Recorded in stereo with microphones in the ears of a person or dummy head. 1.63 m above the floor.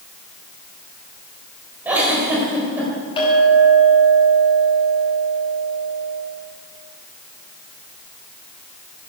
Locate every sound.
1.9 s a giggle: 10° right (ahead or behind), 4 m
3.2 s a clink: 25° left (ahead or behind), 6.5 m